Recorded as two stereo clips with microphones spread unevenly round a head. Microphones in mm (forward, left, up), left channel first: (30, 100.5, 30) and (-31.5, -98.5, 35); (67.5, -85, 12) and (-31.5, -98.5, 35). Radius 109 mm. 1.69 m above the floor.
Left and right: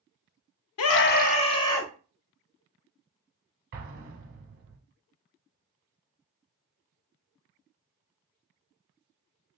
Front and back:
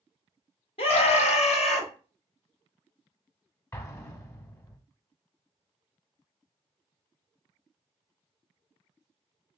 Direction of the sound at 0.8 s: 60° left.